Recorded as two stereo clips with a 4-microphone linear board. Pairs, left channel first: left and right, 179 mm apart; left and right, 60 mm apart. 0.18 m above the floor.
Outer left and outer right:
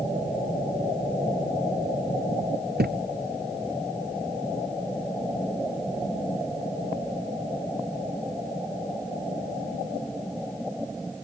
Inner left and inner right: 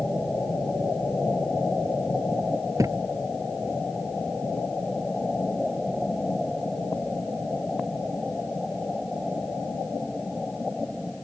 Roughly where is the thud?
Right.